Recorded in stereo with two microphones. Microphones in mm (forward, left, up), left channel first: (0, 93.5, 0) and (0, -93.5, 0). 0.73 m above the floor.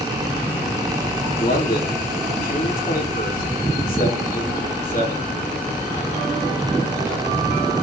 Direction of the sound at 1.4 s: 50° left (ahead or behind).